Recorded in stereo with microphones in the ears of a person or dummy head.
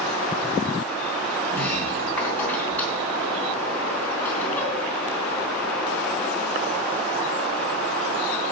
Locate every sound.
1.5 s a sliding door: 10° left (ahead or behind), 3 m